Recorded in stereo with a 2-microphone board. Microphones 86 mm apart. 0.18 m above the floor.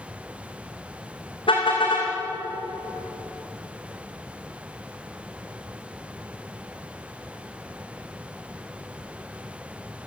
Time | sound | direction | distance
1.5 | a car horn | 80° left | 6.5 m